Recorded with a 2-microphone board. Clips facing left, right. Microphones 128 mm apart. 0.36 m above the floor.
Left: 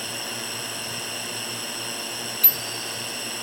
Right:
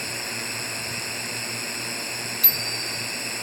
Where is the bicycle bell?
45° left (ahead or behind).